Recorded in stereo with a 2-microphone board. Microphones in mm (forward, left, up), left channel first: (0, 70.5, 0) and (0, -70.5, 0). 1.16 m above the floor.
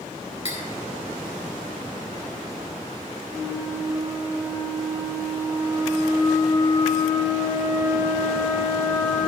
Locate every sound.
0.5 s cutlery clinking: 45° left (ahead or behind), 2 m
3.3 s a flute: 25° right (ahead or behind), 3 m